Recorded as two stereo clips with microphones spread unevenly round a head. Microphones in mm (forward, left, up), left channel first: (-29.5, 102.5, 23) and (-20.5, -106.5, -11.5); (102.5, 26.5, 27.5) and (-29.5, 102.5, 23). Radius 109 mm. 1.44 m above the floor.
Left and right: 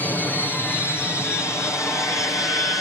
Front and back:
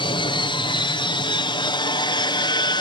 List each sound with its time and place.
0.0 s an aircraft: 5° left; by 2.8 s 15° left